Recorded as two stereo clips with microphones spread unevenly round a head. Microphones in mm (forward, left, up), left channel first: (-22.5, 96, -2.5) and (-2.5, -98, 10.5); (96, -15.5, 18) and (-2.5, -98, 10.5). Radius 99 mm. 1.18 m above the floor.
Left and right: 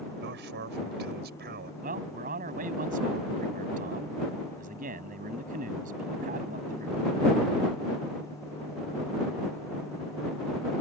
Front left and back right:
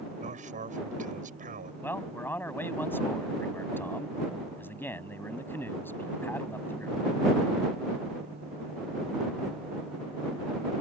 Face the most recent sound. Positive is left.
turn(degrees=-35)